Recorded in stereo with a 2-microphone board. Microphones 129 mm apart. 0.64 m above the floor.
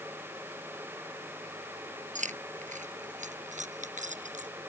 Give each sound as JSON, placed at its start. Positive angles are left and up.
{"t": 2.1, "sound": "keys jangling", "side_deg": -70}